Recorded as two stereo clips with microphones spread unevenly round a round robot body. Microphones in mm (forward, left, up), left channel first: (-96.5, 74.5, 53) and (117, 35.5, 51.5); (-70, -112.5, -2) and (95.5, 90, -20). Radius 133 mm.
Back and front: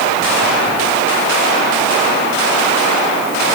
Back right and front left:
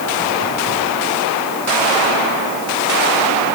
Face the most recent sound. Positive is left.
No sound to turn to.